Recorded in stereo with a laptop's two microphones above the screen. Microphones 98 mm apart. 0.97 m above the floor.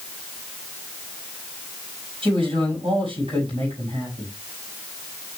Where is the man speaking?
65° right (ahead or behind), 7 m.